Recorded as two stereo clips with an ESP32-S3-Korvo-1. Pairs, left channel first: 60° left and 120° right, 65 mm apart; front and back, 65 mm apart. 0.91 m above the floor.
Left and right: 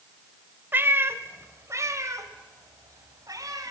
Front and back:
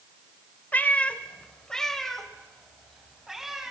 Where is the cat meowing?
65° right, 1.6 m; by 3.7 s 95° right, 3.5 m.